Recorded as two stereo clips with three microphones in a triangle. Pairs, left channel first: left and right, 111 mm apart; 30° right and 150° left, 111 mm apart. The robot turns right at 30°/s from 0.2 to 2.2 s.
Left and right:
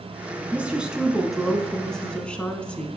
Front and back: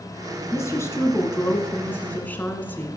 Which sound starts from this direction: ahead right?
A woman speaking, at 0.5 s.